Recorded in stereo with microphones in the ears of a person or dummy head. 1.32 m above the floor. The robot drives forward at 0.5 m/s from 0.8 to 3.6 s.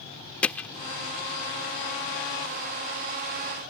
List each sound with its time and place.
0.4 s hammering: 5° left (ahead or behind)